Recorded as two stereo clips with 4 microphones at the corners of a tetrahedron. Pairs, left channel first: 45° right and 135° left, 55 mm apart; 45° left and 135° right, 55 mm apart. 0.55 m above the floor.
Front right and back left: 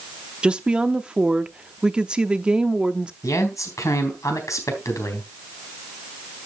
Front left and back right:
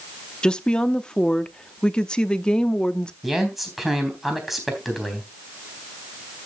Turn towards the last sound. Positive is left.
turn(degrees=-45)